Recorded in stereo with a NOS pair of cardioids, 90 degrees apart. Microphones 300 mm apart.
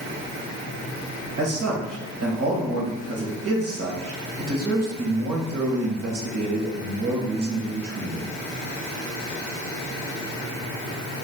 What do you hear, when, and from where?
1.4 s a man speaking: 50° right, 1.8 m